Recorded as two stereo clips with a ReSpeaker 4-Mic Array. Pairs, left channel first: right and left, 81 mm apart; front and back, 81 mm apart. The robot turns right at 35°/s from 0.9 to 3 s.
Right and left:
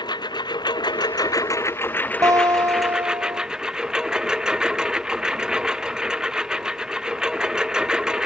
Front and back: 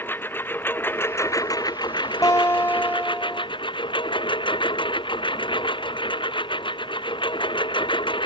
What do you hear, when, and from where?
0.0 s a lawn mower: 65° right; by 8.3 s 10° left
2.2 s a guitar: 45° left; by 3.5 s 75° left